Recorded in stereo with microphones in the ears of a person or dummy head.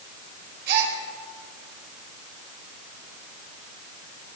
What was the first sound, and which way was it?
A gasp, 55° right (ahead or behind).